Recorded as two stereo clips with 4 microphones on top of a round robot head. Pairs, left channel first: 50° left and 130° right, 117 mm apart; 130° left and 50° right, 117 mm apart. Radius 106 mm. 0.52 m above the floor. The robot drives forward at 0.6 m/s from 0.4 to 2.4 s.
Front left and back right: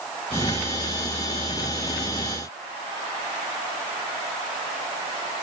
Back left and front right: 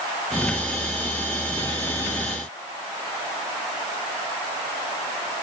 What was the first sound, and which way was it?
Only background noise.